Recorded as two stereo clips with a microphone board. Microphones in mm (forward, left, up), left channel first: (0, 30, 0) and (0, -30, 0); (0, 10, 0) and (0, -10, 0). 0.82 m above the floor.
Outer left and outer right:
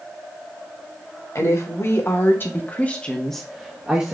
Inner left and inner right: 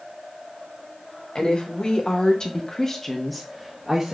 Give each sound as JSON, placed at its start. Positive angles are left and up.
{"t": 1.4, "sound": "a woman speaking", "side_deg": 50, "distance_m": 1.4}